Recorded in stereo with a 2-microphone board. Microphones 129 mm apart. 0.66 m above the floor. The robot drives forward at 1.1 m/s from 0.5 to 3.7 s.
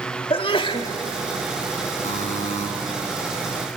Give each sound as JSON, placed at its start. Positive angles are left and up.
{"t": 0.3, "sound": "a sneeze", "side_deg": 45, "distance_m": 1.7}
{"t": 2.0, "sound": "a buzzer", "side_deg": 70, "distance_m": 2.5}